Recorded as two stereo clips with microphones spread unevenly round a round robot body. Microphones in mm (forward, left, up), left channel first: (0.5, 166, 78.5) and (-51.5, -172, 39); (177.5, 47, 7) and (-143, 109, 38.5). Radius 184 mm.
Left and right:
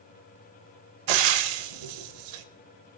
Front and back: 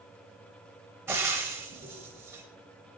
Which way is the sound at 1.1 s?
110° right.